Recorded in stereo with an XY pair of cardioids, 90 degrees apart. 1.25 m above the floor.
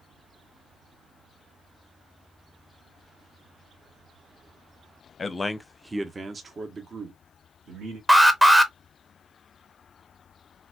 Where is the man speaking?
35° left, 0.7 m; by 8.0 s 70° right, 1.9 m.